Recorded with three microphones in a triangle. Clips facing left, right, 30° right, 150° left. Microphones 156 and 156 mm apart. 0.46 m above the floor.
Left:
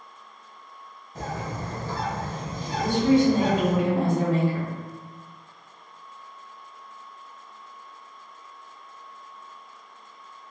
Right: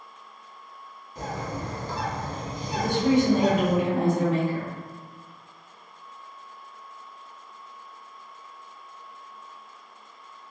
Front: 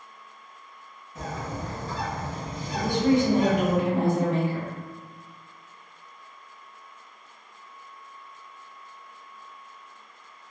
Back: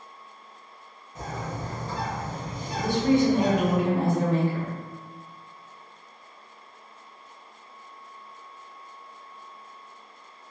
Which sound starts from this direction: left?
A bird, at 1.1 s.